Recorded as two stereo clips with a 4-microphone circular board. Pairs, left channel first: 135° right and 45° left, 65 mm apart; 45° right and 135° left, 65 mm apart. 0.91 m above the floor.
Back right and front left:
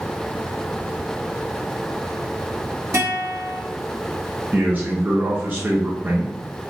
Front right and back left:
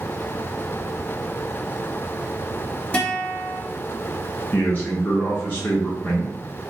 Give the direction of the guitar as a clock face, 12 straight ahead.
11 o'clock.